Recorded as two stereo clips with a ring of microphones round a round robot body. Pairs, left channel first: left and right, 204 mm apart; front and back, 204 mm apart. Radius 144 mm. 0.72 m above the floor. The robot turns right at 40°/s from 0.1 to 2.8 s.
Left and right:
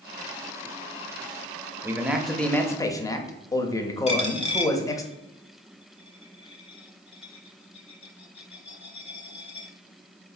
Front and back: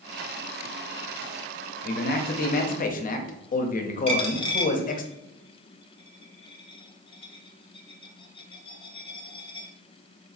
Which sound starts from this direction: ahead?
A man speaking, at 1.8 s.